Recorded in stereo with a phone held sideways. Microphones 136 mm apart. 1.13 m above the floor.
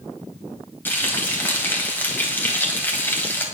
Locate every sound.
0.8 s frying: 15° left (ahead or behind), 3 m